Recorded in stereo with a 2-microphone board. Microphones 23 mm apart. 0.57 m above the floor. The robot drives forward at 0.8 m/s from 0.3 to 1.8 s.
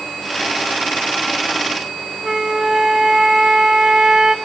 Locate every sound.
2.2 s a flute: 30° right (ahead or behind), 0.5 m